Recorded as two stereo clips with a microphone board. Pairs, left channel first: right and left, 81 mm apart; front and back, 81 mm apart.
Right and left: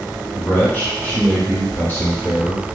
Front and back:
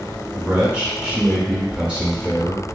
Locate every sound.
0.3 s a man speaking: 115° right, 1.6 m